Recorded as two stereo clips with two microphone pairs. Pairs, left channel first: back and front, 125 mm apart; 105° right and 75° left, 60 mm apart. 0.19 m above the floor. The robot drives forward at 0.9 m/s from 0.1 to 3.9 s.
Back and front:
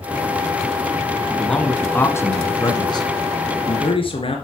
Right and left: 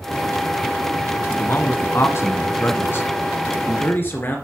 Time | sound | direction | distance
1.3 | a man speaking | 90° right | 1.9 m